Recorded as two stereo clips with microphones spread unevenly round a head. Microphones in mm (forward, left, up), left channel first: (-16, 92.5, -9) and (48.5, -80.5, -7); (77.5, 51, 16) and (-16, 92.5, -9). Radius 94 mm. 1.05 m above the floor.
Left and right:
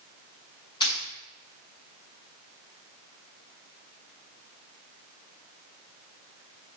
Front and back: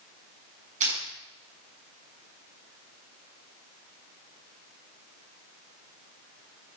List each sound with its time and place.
0.8 s crushing: straight behind, 6 m